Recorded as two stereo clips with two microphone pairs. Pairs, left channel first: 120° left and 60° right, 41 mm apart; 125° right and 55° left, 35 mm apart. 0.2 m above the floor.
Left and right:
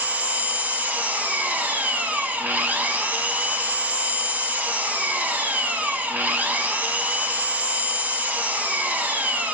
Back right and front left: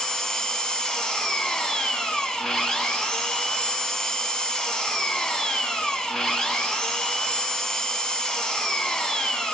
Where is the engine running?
65° right, 0.8 m.